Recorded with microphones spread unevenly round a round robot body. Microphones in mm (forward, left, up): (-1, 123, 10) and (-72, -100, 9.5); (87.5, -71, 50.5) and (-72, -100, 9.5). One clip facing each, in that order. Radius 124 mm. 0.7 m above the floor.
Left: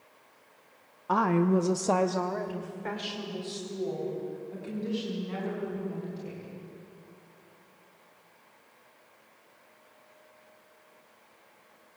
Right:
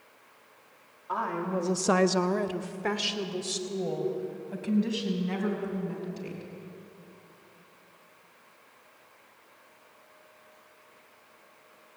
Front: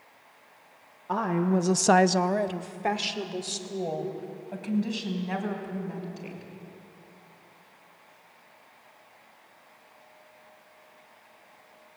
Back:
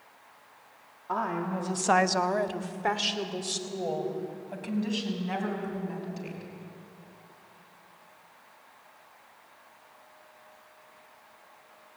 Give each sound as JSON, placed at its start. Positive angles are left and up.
{"t": 1.1, "sound": "a woman speaking", "azimuth_deg": 85, "distance_m": 0.9}